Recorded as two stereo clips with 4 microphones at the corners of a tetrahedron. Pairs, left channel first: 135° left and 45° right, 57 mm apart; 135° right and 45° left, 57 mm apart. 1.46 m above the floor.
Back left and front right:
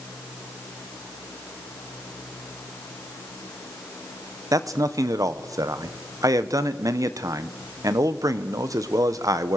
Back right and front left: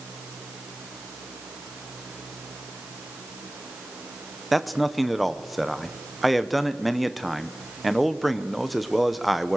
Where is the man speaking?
45° right, 0.9 m.